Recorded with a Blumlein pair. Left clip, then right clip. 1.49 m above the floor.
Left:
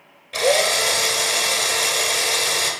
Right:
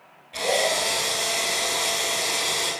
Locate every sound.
0.3 s a drill: 60° left, 2.5 m